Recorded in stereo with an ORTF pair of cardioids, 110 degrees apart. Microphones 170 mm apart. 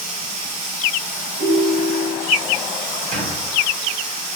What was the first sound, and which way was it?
Running water, 70° right.